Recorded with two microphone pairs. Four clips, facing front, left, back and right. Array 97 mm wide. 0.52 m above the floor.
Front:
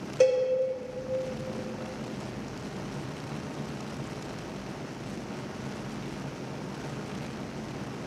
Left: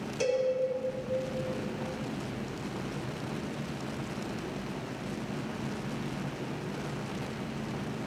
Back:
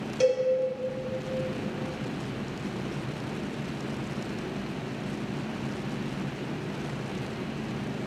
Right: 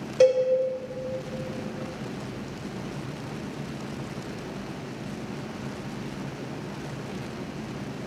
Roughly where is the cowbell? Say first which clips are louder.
Right 10 dB, front 2 dB; right.